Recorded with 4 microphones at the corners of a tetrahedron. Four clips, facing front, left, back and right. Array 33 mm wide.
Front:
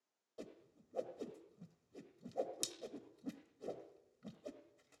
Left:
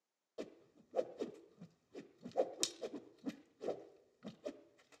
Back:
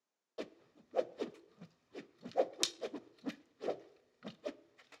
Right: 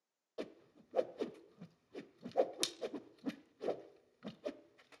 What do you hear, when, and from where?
0.4 s a whoosh: 150° right, 0.9 m